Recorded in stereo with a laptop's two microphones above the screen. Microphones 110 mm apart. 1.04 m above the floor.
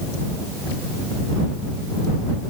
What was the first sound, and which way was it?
Only background noise.